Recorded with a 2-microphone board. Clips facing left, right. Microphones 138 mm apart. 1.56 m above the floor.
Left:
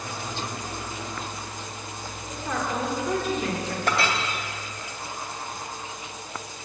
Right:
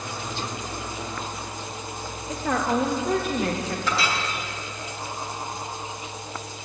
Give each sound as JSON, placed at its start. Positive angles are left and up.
{"t": 2.3, "sound": "a woman speaking", "side_deg": -75, "distance_m": 1.8}
{"t": 3.9, "sound": "a clink", "side_deg": 50, "distance_m": 1.8}